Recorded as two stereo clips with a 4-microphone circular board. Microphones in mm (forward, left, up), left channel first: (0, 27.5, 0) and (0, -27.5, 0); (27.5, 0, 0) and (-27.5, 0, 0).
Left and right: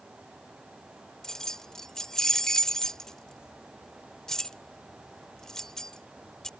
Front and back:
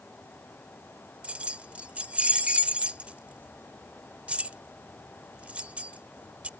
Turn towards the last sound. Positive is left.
turn(degrees=155)